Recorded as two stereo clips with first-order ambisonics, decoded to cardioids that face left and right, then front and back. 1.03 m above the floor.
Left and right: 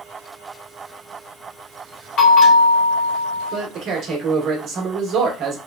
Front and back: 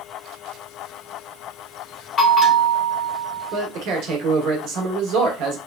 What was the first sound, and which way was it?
A bell, 55° left.